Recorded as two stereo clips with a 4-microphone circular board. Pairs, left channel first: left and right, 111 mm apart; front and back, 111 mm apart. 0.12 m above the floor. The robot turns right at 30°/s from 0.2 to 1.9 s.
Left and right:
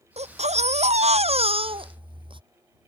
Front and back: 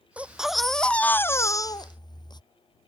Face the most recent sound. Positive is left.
turn(degrees=-50)